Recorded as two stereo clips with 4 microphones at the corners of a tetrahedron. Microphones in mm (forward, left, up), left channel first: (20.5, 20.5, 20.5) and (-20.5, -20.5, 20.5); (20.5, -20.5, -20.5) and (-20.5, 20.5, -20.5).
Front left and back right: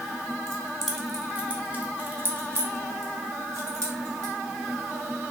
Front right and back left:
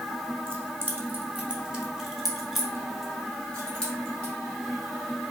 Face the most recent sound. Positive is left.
turn(degrees=-115)